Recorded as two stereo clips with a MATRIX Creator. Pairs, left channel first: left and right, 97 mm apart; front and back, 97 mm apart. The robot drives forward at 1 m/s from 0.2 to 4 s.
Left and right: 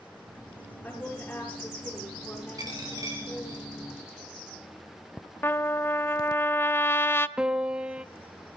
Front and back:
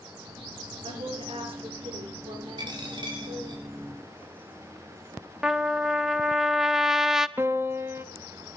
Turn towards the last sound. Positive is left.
turn(degrees=-160)